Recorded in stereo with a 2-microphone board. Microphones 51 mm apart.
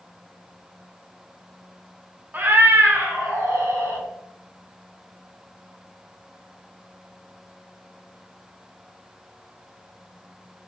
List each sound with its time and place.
2.3 s a cat meowing: 40° right (ahead or behind), 0.6 m; by 4.0 s 85° right, 2 m